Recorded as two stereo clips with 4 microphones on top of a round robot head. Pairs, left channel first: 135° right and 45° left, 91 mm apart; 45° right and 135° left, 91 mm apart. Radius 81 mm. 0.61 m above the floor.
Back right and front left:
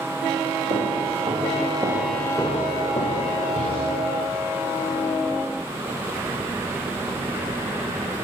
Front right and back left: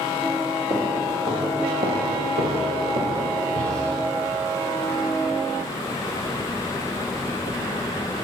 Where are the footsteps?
80° left, 1.3 m; by 4.0 s 160° right, 1.6 m.